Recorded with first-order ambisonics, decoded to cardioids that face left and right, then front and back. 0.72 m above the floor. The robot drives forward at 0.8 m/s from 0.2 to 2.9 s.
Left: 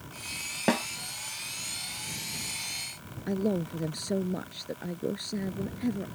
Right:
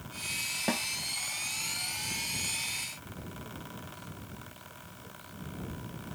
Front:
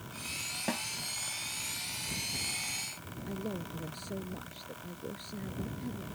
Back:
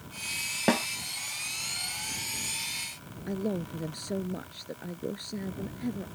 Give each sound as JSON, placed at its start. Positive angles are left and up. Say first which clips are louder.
{"t": 0.7, "sound": "a snare drum", "louder": "left 7 dB, back 11 dB", "azimuth_deg": 150}
{"t": 3.3, "sound": "a man speaking", "louder": "left 18 dB, back 7 dB", "azimuth_deg": 115}